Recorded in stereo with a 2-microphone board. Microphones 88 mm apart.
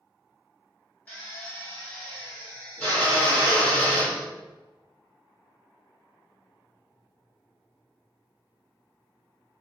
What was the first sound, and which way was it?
A drill, 20° left (ahead or behind).